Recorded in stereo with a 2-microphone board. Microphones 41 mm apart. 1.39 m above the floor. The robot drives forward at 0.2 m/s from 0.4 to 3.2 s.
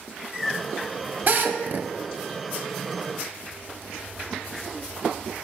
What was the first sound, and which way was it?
A drill, 50° right (ahead or behind).